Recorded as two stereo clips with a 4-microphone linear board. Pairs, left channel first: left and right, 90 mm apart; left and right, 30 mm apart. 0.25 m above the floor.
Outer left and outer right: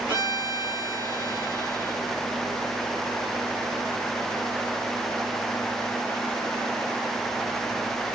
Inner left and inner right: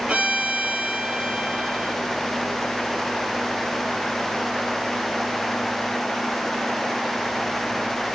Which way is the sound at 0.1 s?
55° right (ahead or behind).